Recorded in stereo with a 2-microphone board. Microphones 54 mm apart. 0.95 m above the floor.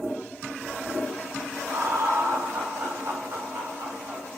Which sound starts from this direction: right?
Laughter, at 1.7 s.